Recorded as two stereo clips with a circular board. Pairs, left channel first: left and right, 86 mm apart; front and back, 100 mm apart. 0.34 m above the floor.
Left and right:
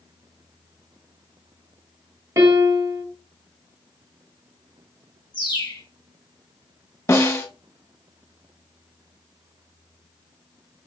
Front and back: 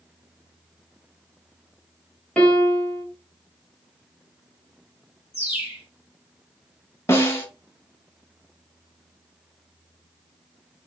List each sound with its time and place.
2.4 s a piano: 70° right, 1.7 m
5.3 s a bird: 105° left, 2.5 m
7.1 s a snare drum: 50° left, 1.3 m